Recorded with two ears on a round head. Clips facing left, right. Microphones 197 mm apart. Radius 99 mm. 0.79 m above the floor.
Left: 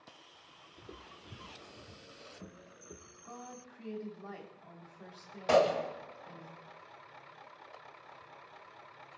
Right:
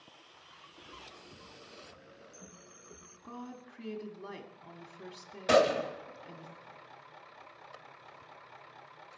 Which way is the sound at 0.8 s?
40° left (ahead or behind).